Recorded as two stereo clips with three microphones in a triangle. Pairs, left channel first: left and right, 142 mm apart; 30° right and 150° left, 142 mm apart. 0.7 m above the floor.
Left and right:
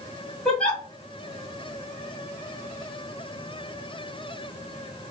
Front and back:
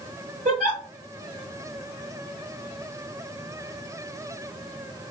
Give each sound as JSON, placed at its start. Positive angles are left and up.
{"t": 0.5, "sound": "a giggle", "azimuth_deg": 175, "distance_m": 1.5}